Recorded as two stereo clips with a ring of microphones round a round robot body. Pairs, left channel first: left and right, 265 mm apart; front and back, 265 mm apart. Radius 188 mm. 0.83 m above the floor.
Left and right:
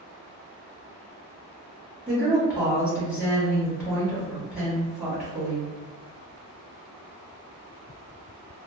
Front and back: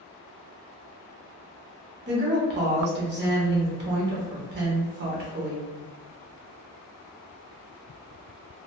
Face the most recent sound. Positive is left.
turn(degrees=-175)